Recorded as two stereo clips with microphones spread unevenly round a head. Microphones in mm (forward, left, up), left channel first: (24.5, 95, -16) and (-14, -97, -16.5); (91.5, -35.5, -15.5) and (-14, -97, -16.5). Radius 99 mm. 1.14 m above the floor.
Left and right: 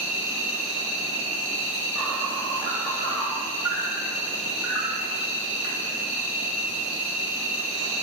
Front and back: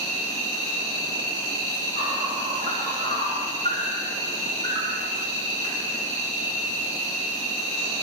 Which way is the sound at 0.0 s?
Straight behind.